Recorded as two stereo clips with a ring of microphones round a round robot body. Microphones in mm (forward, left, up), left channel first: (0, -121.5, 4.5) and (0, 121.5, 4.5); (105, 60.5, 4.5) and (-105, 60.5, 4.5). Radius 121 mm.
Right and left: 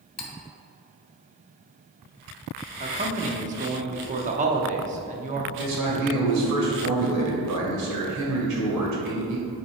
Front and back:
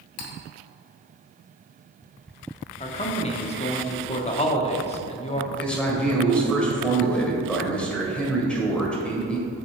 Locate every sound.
0.2 s cutlery clinking: 20° right, 1.0 m
2.8 s a man speaking: 45° left, 0.9 m
5.6 s a man speaking: 85° left, 2 m